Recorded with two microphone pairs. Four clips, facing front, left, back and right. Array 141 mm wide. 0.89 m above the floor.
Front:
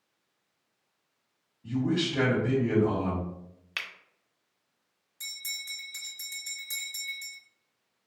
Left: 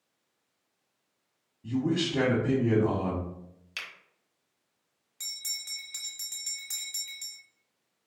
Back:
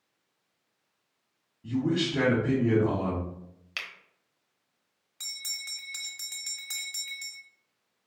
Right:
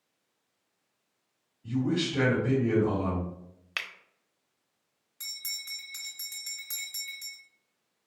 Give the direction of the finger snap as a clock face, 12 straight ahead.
3 o'clock.